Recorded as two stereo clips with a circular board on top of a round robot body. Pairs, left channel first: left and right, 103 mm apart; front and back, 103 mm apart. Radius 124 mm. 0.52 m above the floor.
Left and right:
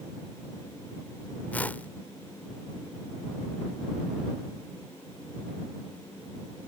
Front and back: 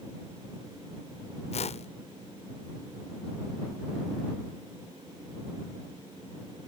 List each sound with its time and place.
1.5 s a whoosh: 15° left